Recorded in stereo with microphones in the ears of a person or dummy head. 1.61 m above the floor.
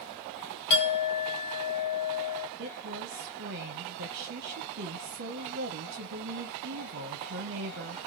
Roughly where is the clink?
Left.